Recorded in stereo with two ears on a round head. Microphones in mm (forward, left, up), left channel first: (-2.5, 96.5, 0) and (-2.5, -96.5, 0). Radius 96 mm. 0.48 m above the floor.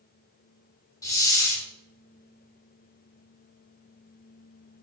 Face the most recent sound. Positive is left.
turn(degrees=15)  # may be behind; listen again after turning